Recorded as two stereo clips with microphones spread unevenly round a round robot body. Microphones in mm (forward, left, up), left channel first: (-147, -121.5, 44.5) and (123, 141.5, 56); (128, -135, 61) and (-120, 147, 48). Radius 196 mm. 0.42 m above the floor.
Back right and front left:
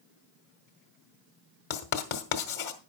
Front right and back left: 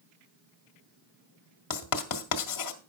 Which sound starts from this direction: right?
Writing, at 1.7 s.